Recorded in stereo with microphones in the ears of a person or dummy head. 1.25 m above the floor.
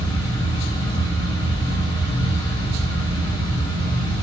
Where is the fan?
20° left (ahead or behind), 1.5 m.